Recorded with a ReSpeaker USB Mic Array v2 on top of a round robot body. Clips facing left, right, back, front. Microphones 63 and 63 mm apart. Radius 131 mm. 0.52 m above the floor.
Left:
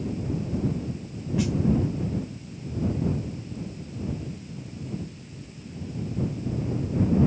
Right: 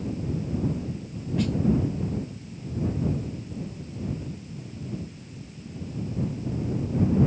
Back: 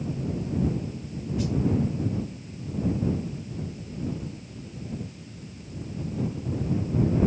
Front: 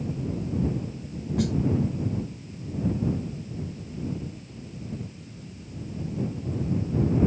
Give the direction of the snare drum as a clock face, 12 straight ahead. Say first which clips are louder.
Even, front 3 dB; 12 o'clock.